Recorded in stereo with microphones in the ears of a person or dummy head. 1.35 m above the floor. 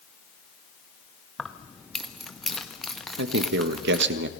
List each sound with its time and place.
1.4 s keys jangling: centre (ahead or behind), 0.9 m
3.2 s a man speaking: 70° right (ahead or behind), 1.3 m